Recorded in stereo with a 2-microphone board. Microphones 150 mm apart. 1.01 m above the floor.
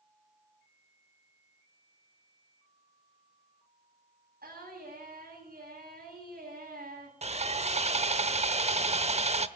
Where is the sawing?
45° right (ahead or behind), 0.9 m.